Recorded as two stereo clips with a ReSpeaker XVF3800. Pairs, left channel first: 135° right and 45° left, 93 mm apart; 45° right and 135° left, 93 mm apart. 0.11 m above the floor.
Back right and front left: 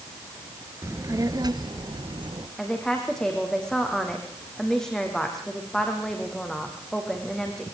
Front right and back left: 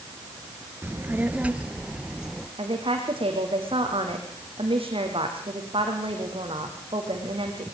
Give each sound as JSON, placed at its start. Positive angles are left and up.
{"t": 0.8, "sound": "a child speaking", "azimuth_deg": 85, "distance_m": 1.3}
{"t": 2.6, "sound": "a woman speaking", "azimuth_deg": 140, "distance_m": 5.5}